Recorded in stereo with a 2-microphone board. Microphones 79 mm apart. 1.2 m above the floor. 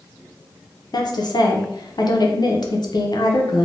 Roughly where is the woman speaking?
Left.